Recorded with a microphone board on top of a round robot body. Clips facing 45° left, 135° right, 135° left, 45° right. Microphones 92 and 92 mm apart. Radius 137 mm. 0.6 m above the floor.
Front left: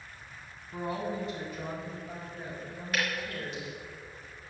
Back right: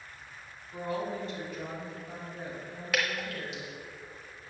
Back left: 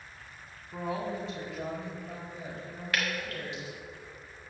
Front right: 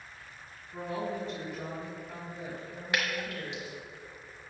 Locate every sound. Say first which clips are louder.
0.7 s a woman speaking: even, back left 1 dB; 115° left, 2 m; by 3.8 s 150° left, 5 m
2.9 s dripping: back right 1 dB, front right 1 dB; 120° right, 1.0 m